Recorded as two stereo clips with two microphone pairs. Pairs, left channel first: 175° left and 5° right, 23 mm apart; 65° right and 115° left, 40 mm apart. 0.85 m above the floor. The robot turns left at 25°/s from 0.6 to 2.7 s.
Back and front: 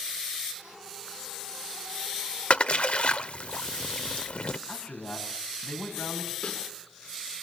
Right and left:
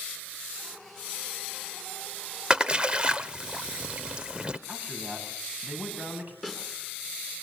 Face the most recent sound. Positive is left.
turn(degrees=-165)